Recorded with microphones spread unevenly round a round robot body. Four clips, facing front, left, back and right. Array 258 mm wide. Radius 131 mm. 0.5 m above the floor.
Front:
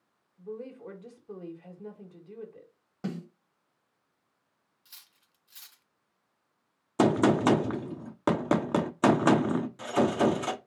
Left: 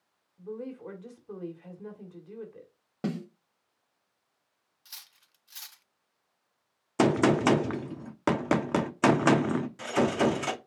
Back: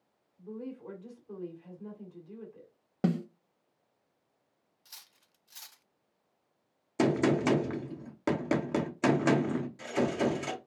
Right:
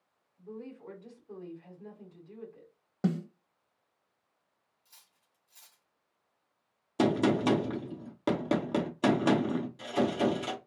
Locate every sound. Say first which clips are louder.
0.4 s a woman speaking: left 6 dB, front 1 dB; 40° left, 1.9 m
3.0 s a snare drum: right 2 dB, back 7 dB; 175° right, 0.8 m
4.8 s cutlery clinking: left 10 dB, back 3 dB; 100° left, 0.5 m
7.0 s a gunshot: left 3 dB, front 4 dB; 20° left, 0.6 m